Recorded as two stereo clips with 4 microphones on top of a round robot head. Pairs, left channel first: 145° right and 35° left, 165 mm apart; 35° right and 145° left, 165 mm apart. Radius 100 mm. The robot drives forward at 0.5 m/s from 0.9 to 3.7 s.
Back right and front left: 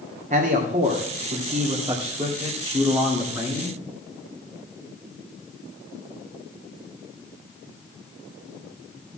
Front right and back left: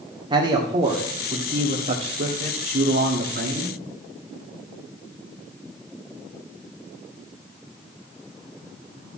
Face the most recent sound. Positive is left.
turn(degrees=120)